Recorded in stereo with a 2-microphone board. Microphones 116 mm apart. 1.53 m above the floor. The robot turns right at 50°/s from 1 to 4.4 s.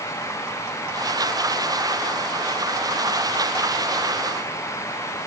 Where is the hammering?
I don't hear hammering.